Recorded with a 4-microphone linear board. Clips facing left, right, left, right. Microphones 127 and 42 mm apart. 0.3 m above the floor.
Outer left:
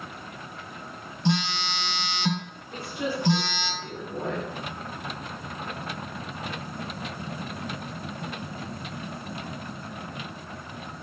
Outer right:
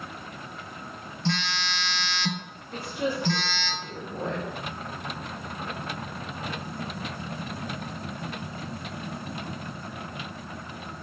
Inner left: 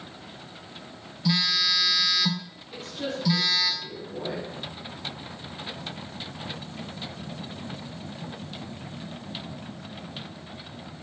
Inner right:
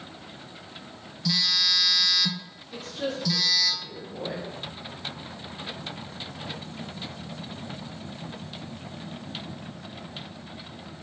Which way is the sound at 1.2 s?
15° left (ahead or behind).